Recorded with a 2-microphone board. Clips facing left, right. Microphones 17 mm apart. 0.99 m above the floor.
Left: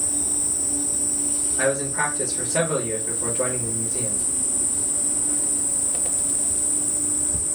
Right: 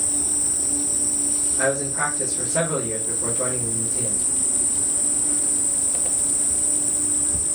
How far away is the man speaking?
About 1.2 m.